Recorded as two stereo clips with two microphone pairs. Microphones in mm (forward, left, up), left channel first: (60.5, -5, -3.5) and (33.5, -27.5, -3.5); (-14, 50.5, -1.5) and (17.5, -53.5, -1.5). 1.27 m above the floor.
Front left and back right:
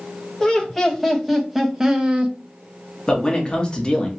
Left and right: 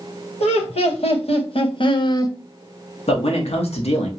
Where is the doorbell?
I don't hear a doorbell.